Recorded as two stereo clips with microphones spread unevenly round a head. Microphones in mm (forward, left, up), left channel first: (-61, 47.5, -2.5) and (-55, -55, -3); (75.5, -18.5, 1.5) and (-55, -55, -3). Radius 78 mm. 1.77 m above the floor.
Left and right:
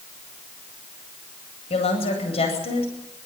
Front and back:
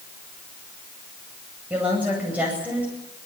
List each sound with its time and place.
1.7 s a woman speaking: 115° left, 9 m